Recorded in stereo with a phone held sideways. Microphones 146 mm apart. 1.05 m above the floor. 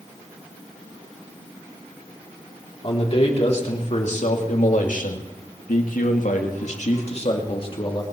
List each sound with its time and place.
2.8 s a man speaking: 45° left (ahead or behind), 3 m; by 8.0 s 35° left (ahead or behind), 2.5 m